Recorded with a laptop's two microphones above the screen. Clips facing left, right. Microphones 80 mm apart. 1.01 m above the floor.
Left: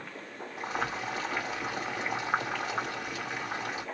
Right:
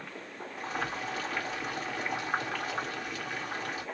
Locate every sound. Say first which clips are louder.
0.6 s boiling: left 2 dB; 25° left (ahead or behind), 1.9 m